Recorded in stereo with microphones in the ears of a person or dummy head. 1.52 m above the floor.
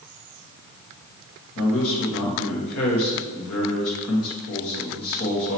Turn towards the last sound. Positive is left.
turn(degrees=85)